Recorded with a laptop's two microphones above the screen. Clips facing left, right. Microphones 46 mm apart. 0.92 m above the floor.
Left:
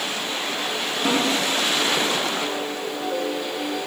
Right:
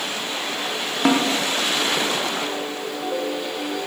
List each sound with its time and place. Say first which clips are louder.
1.1 s a snare drum: right 4 dB; 60° right (ahead or behind), 0.6 m